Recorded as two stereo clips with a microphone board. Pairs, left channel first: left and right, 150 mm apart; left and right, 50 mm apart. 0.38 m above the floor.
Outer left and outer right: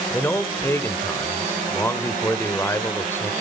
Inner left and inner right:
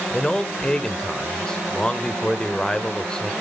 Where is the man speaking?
15° left (ahead or behind), 1.3 m.